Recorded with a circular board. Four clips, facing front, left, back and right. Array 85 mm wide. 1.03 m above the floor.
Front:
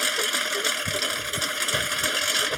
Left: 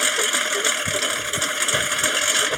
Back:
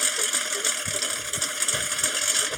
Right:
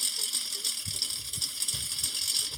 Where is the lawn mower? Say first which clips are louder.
Left 23 dB, front 4 dB; 80° left.